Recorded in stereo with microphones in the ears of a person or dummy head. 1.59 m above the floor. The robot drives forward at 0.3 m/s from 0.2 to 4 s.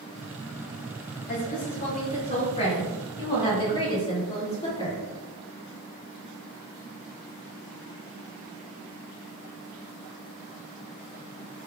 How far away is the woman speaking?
About 0.9 m.